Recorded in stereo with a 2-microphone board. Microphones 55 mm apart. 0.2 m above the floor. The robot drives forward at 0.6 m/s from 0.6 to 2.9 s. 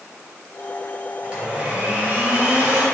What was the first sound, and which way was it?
A blender, 15° right (ahead or behind).